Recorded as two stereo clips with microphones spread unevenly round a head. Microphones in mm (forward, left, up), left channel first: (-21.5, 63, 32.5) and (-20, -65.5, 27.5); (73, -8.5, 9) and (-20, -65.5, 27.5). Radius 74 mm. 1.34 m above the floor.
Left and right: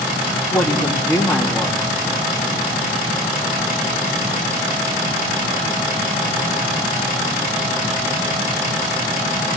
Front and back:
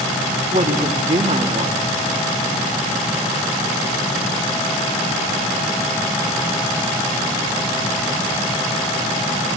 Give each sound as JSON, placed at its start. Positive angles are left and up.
{"t": 0.5, "sound": "a woman speaking", "azimuth_deg": 170, "distance_m": 3.0}